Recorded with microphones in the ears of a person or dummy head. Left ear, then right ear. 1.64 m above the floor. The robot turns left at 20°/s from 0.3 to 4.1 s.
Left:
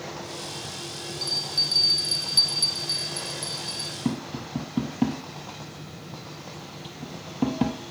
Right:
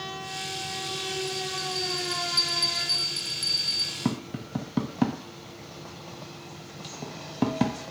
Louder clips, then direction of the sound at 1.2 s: Left 5 dB; 30° left.